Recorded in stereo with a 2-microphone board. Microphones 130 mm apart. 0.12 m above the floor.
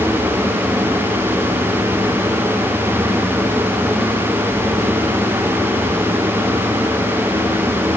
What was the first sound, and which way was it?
Only background noise.